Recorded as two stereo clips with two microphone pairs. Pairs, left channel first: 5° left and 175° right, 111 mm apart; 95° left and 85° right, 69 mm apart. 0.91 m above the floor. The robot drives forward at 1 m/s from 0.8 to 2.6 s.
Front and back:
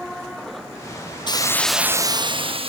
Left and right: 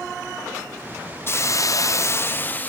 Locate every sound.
1.3 s a hiss: 45° left, 0.6 m; by 2.7 s 160° left, 1.1 m